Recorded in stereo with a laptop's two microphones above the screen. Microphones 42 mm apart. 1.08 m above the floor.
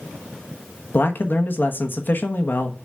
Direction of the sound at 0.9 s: 50° left (ahead or behind).